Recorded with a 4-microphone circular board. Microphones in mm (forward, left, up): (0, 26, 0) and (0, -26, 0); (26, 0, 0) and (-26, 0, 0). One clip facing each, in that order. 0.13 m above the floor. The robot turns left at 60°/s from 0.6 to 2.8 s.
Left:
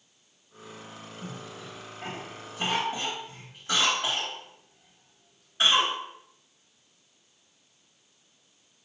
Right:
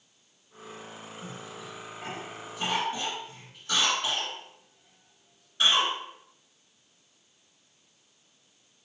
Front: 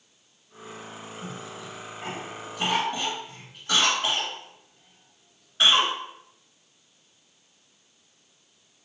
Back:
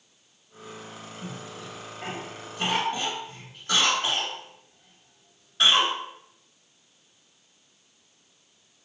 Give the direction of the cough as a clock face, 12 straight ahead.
6 o'clock.